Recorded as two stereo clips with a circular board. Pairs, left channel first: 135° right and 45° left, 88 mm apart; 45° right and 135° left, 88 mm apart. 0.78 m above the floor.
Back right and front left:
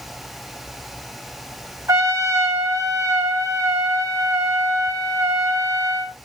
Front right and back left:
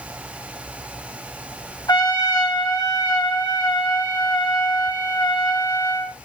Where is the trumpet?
10° right, 3.5 m.